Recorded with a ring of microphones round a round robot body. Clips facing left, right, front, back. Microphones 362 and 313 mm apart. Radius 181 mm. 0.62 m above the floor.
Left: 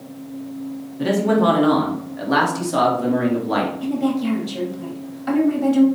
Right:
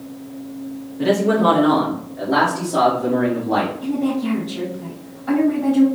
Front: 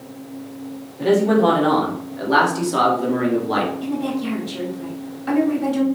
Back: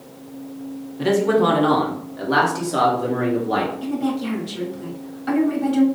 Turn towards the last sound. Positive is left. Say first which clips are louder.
# left 1 dB, even
turn(degrees=90)